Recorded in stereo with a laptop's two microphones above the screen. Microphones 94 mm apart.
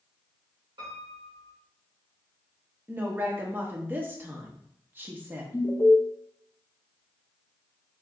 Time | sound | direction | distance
0.8 | a piano | 60° right (ahead or behind) | 2.5 m
2.9 | a woman speaking | 20° right (ahead or behind) | 1.2 m
5.5 | an alarm | 25° left (ahead or behind) | 0.5 m